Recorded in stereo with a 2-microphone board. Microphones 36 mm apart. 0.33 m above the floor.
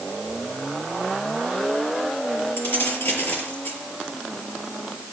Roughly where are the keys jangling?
Left.